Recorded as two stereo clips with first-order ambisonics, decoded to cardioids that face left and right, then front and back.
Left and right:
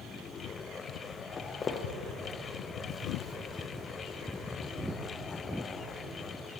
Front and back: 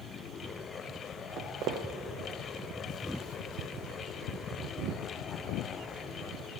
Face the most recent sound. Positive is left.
turn(degrees=10)